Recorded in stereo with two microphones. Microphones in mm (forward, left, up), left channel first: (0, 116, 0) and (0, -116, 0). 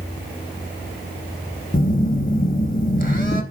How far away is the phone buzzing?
About 1.0 m.